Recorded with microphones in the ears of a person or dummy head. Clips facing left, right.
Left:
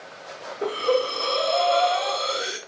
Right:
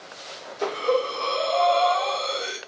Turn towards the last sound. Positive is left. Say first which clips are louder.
# left 1 dB
turn(degrees=15)  # may be behind; listen again after turning